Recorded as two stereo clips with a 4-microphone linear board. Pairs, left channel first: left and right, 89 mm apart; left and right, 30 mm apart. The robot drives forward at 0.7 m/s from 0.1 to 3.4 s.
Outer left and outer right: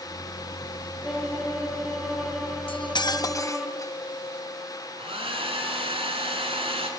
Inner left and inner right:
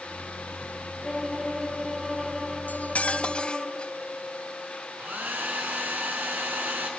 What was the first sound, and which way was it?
A violin, 5° right (ahead or behind).